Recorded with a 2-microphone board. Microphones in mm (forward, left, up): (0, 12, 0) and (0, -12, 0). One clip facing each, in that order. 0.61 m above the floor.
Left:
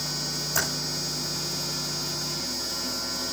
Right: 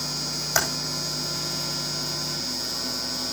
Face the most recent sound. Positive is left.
turn(degrees=-70)  # may be behind; listen again after turning